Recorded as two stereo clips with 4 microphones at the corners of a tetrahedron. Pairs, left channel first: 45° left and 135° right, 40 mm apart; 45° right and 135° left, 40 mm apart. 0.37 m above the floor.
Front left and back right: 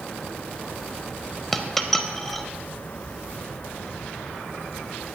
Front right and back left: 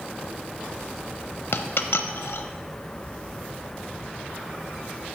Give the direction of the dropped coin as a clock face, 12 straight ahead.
1 o'clock.